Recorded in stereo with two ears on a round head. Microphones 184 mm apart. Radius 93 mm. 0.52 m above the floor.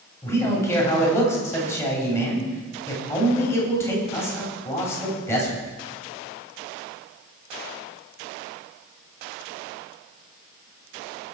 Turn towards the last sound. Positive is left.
turn(degrees=15)  # may be behind; listen again after turning